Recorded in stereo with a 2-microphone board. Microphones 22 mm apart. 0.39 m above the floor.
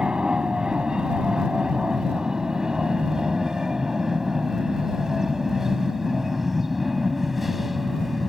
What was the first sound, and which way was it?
An aircraft, 40° right (ahead or behind).